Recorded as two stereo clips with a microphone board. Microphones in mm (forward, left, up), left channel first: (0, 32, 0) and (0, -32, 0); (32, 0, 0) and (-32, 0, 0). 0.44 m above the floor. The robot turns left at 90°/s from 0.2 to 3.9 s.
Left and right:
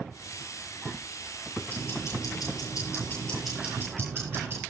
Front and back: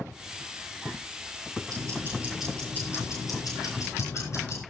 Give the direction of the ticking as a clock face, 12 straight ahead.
7 o'clock.